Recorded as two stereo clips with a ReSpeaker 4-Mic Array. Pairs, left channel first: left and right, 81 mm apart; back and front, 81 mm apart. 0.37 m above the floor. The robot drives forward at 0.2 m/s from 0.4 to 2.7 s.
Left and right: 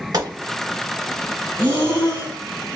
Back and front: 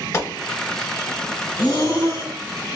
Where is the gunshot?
130° right, 1.1 m.